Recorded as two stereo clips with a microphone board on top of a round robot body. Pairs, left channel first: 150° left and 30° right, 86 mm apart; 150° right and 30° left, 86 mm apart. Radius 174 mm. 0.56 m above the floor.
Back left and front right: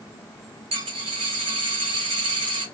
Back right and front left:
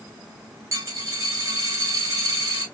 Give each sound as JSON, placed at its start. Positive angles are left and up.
{"t": 0.7, "sound": "a dropped coin", "azimuth_deg": -25, "distance_m": 0.6}